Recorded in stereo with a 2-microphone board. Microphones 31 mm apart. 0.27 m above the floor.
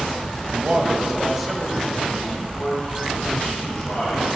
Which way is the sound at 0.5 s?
45° right (ahead or behind).